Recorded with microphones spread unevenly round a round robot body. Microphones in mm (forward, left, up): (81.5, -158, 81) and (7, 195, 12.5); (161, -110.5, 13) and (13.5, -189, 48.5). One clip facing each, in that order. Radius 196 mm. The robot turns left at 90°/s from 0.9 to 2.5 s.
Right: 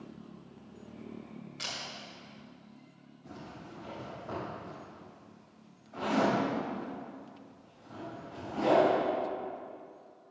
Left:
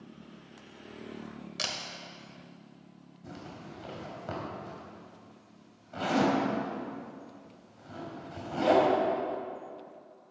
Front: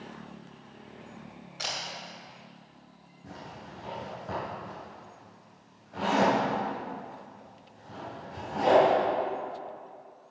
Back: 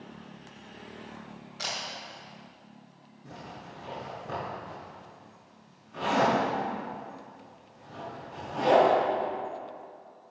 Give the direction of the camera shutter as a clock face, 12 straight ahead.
8 o'clock.